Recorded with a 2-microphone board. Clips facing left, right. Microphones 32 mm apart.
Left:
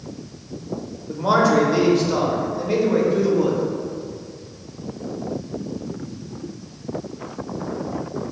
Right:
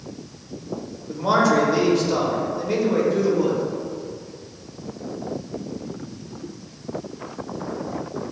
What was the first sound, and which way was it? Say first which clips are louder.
A man speaking: left 1 dB; 5° left (ahead or behind).